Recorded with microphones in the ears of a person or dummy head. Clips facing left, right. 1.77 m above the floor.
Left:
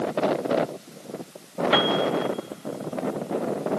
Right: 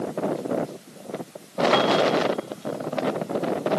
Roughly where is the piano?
Centre.